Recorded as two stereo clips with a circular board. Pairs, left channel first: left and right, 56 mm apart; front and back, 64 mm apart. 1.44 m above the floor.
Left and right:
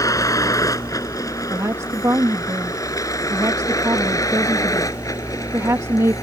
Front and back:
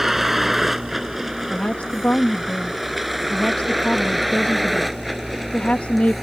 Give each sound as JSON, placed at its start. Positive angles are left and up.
{"t": 0.0, "sound": "a vehicle", "azimuth_deg": 95}
{"t": 1.5, "sound": "a woman speaking", "azimuth_deg": -70}